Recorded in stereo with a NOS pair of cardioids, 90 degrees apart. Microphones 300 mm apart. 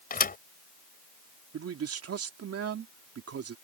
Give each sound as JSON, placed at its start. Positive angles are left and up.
{"t": 0.1, "sound": "a thud", "azimuth_deg": 30}
{"t": 1.5, "sound": "a man speaking", "azimuth_deg": -50}